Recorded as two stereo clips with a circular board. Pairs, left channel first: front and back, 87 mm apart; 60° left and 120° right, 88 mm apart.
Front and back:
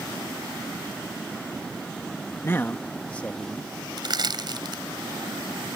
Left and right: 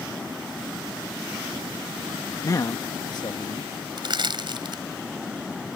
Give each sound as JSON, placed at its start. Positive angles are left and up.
{"t": 2.4, "sound": "a man speaking", "azimuth_deg": 45}
{"t": 4.0, "sound": "crushing", "azimuth_deg": -145}